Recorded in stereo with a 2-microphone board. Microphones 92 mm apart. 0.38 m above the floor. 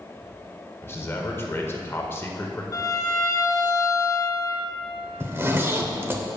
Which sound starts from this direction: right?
A zipper, at 5.2 s.